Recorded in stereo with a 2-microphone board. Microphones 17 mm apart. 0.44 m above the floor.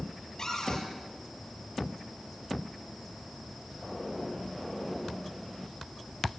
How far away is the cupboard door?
About 10 m.